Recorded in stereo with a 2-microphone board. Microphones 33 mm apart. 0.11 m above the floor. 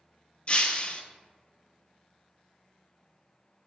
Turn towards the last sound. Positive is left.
turn(degrees=40)  # may be behind; listen again after turning